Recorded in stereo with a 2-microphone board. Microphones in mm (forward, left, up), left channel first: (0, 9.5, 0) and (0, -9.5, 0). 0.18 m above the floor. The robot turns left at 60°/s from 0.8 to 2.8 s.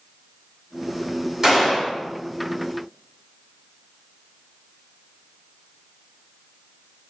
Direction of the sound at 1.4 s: 25° right (ahead or behind).